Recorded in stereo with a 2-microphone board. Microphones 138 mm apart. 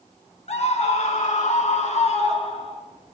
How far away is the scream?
About 2 m.